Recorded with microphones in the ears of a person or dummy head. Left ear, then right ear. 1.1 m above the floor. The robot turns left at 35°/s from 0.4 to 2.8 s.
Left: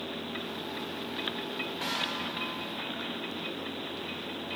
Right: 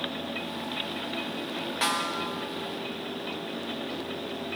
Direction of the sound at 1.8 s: 40° right (ahead or behind).